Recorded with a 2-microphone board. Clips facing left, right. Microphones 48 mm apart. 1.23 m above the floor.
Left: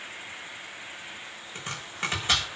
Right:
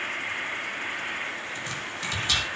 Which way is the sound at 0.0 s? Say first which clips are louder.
Right 10 dB; 60° right (ahead or behind).